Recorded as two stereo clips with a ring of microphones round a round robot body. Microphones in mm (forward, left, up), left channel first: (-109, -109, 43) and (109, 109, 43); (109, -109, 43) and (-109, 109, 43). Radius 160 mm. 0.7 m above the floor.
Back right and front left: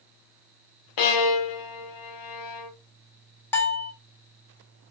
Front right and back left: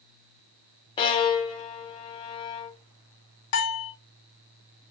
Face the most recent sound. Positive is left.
turn(degrees=-55)